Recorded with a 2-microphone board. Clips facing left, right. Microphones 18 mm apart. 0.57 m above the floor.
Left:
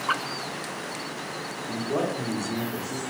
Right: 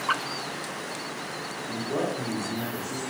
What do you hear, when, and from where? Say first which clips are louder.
1.7 s a man speaking: left 2 dB; 25° left (ahead or behind), 0.6 m